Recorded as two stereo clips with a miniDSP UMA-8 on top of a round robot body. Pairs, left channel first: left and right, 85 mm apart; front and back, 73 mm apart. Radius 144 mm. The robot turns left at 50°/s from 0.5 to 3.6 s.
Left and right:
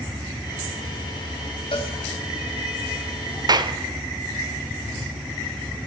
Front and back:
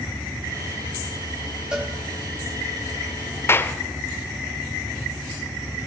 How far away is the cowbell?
About 4 m.